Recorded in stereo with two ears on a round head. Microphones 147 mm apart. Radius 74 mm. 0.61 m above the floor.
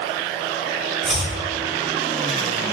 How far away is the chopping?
About 4.5 m.